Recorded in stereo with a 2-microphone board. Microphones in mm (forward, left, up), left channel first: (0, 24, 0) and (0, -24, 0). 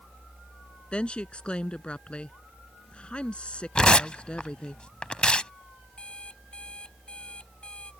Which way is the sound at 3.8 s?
20° left (ahead or behind).